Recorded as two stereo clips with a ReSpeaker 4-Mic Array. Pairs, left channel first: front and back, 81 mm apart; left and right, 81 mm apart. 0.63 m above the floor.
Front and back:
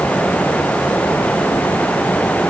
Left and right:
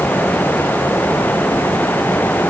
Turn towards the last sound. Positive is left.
No sound to turn to.